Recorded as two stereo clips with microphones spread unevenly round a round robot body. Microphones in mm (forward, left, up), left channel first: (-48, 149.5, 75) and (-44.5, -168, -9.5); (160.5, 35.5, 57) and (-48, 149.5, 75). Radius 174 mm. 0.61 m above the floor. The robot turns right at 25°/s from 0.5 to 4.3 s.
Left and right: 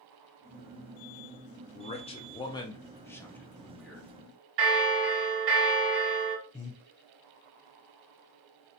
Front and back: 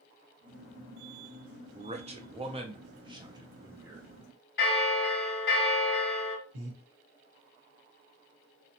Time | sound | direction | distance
1.8 | a man speaking | 170° left | 0.5 m
4.6 | a bell | 65° right | 1.3 m
6.5 | breathing | straight behind | 1.1 m